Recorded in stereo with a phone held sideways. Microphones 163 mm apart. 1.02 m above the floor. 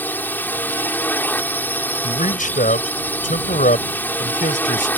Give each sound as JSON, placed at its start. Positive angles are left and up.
{"t": 0.0, "sound": "a drone", "side_deg": 10}
{"t": 2.0, "sound": "a man speaking", "side_deg": 60}